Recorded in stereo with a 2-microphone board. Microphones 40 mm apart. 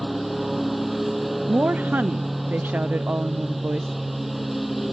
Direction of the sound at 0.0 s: Centre (ahead or behind).